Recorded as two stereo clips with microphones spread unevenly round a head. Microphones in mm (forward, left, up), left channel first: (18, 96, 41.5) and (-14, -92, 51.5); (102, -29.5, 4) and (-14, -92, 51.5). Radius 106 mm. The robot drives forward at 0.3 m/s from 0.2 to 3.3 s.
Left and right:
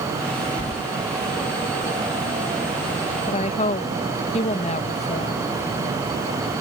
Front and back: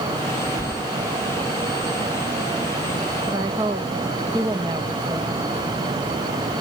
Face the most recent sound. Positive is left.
turn(degrees=135)